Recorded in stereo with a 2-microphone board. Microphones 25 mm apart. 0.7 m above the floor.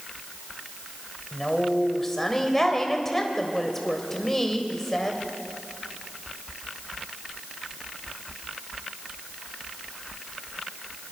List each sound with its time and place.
1.3 s a woman speaking: 15° left (ahead or behind), 3.5 m